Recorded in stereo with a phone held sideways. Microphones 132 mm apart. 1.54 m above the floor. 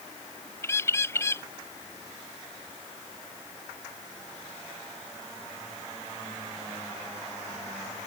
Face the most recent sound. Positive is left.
turn(degrees=20)  # may be behind; listen again after turning